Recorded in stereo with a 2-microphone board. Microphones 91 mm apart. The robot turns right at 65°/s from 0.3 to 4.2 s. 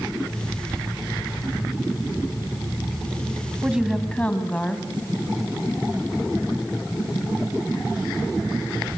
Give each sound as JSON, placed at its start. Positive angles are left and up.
{"t": 3.6, "sound": "a woman speaking", "azimuth_deg": -20, "distance_m": 2.5}